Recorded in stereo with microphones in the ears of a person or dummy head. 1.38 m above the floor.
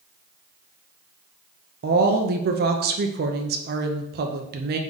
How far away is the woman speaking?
About 0.5 m.